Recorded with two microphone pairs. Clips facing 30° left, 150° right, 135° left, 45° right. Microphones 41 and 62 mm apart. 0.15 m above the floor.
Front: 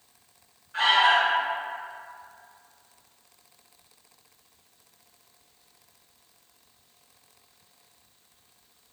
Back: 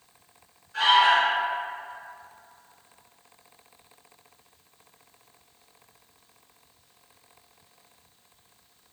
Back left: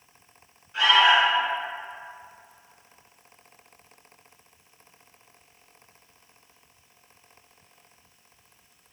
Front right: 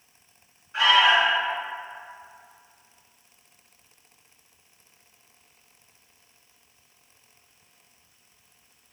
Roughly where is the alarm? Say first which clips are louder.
Back 1 dB, even; ahead.